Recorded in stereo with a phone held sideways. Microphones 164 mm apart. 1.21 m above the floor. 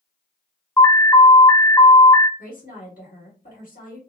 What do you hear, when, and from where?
0.8 s an alarm: 15° left (ahead or behind), 0.5 m
2.4 s a woman speaking: 65° left (ahead or behind), 1.3 m